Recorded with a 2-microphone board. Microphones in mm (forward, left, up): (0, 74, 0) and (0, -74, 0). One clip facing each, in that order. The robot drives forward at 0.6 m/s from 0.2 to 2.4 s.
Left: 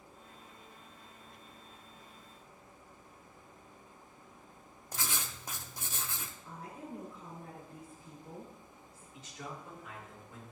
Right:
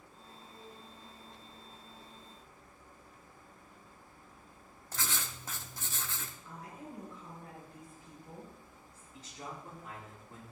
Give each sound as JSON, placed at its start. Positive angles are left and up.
{"t": 4.9, "sound": "writing", "side_deg": 15, "distance_m": 0.6}
{"t": 6.5, "sound": "a woman speaking", "side_deg": 30, "distance_m": 4.0}
{"t": 9.1, "sound": "a man speaking", "side_deg": -35, "distance_m": 3.0}